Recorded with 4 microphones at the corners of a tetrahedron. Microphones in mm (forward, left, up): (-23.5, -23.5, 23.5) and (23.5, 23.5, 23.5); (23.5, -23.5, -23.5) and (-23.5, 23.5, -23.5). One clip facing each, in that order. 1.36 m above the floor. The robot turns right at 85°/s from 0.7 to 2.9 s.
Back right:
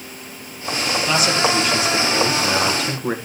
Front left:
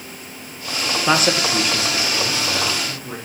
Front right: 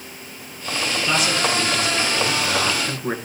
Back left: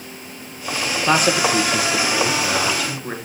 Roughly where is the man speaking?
Left.